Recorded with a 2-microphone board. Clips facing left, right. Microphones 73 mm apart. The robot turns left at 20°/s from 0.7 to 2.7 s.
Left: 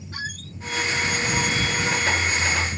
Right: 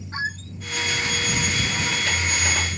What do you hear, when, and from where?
0.1 s a squeak: 25° right (ahead or behind)